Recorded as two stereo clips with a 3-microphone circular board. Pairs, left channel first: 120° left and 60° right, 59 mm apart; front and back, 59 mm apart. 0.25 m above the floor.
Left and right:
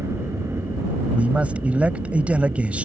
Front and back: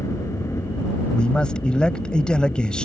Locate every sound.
0.0 s a helicopter: 25° right; by 2.9 s 35° right
1.1 s a man speaking: 50° right